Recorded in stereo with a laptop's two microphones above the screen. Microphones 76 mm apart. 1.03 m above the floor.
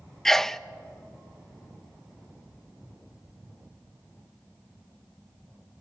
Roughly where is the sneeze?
Centre.